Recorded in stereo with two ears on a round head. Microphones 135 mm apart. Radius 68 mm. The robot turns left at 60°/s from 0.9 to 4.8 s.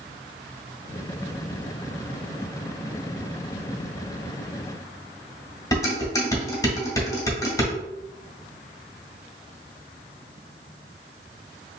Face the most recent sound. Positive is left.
turn(degrees=25)  # may be behind; listen again after turning